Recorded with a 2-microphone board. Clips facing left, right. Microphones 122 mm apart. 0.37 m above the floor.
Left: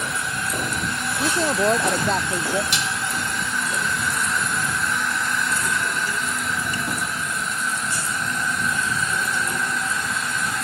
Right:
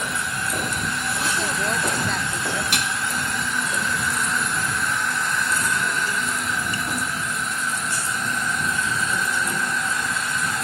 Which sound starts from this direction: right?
Dishes clattering, at 2.7 s.